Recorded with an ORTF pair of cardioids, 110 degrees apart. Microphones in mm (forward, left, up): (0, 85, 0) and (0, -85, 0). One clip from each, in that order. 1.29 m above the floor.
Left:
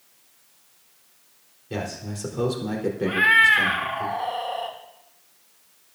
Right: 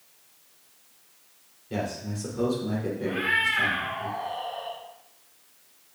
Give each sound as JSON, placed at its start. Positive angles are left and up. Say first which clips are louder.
{"t": 1.7, "sound": "a man speaking", "louder": "even", "azimuth_deg": 25, "distance_m": 4.0}
{"t": 3.1, "sound": "a cat meowing", "louder": "left 9 dB", "azimuth_deg": 60, "distance_m": 1.4}